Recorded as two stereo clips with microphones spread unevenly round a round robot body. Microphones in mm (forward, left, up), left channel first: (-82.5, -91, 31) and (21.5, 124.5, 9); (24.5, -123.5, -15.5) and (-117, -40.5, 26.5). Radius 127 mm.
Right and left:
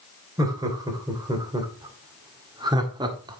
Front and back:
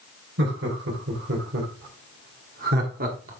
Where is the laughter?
135° left, 2.5 m; by 3.4 s 115° left, 1.5 m.